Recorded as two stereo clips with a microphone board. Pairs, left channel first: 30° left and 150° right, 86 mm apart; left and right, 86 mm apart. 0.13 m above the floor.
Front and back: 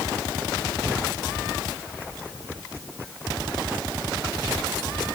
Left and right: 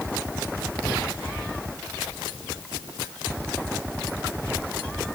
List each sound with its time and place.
Only background noise.